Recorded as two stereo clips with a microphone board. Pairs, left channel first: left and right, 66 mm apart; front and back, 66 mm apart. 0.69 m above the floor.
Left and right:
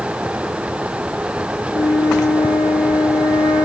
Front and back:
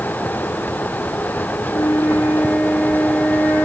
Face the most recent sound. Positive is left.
turn(degrees=75)